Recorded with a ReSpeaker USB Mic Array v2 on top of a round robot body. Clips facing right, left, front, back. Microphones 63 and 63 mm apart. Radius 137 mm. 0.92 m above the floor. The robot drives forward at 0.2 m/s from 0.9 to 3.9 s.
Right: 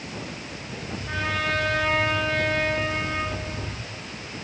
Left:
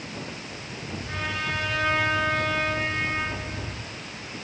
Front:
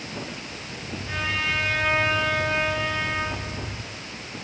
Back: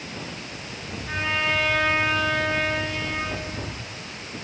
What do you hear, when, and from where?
1.1 s a trumpet: 120° right, 1.8 m; by 3.3 s 130° right, 2 m